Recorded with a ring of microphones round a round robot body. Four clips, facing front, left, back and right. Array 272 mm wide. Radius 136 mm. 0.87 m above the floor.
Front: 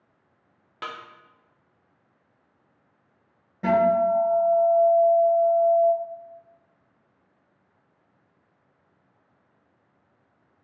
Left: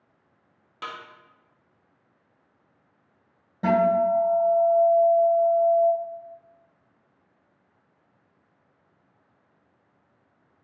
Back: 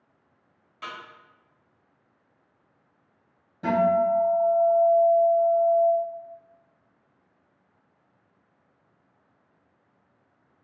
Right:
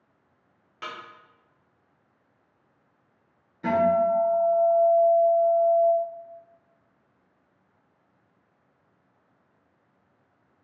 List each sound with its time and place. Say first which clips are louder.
0.8 s a snare drum: left 1 dB, front 3 dB; 10° left, 0.9 m
3.6 s a guitar: left 1 dB, front 2 dB; 80° left, 1.8 m